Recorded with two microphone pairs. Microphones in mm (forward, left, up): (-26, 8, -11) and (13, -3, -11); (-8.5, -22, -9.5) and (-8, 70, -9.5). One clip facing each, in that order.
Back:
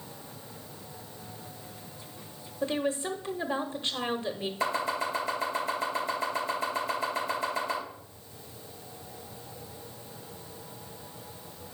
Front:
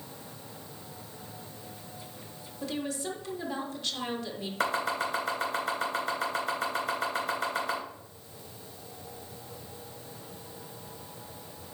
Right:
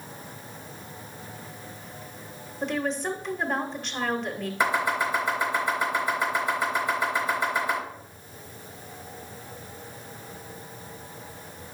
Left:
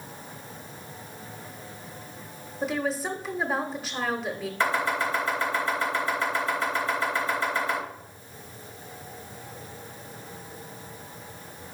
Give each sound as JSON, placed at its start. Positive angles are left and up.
{"t": 2.6, "sound": "a woman speaking", "azimuth_deg": 170, "distance_m": 0.8}
{"t": 4.6, "sound": "chopping", "azimuth_deg": -15, "distance_m": 3.5}